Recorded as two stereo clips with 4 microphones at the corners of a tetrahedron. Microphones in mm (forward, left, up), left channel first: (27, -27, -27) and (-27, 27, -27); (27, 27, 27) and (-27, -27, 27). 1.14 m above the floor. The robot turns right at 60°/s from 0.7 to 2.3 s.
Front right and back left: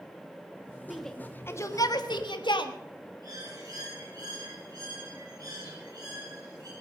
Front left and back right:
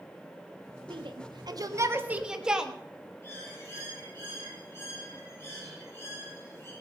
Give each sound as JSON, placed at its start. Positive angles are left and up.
{"t": 0.9, "sound": "a shout", "azimuth_deg": -140, "distance_m": 1.6}
{"t": 3.2, "sound": "a bird", "azimuth_deg": 105, "distance_m": 10.0}